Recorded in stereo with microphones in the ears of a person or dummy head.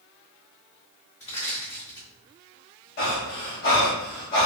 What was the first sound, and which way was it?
Crushing, 25° left (ahead or behind).